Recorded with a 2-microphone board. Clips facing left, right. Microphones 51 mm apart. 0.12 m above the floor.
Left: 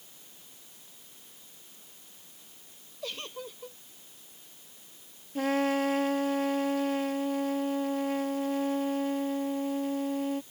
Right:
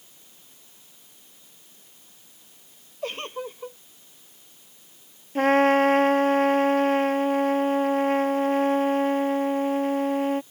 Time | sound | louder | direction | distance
3.0 | a giggle | right 7 dB | 40° right (ahead or behind) | ?
5.3 | a trumpet | right 9 dB | 50° right (ahead or behind) | ?